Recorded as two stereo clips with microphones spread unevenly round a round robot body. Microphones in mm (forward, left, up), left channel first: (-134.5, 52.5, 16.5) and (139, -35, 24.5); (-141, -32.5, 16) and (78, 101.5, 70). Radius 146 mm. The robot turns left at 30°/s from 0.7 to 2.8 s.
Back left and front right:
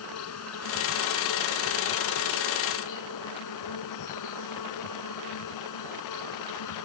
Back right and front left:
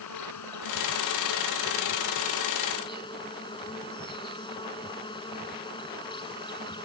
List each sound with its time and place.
0.0 s an insect: 160° right; by 6.8 s 140° left